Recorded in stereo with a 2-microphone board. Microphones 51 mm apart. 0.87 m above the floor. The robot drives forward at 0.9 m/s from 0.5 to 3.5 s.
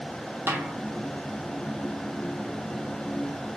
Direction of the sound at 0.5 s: 35° right (ahead or behind).